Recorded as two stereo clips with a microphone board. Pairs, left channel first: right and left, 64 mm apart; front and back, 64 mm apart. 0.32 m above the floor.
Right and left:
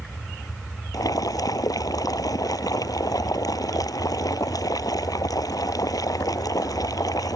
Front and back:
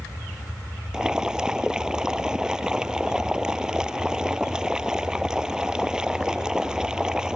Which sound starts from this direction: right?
Boiling, at 0.9 s.